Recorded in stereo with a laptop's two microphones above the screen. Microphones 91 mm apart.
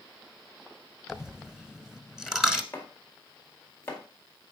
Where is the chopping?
25° left (ahead or behind), 1.9 m.